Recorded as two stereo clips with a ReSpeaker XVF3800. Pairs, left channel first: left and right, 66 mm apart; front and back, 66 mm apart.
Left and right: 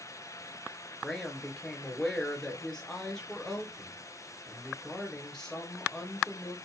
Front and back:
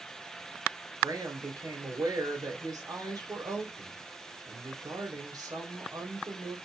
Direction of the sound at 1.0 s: 170° left.